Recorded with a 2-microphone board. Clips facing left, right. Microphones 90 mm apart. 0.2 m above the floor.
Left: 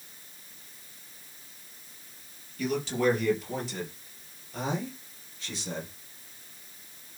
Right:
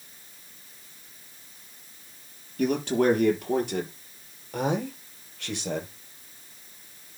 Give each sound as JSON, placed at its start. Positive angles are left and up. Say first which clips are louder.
{"t": 2.6, "sound": "a man speaking", "louder": "right 4 dB", "side_deg": -50, "distance_m": 4.5}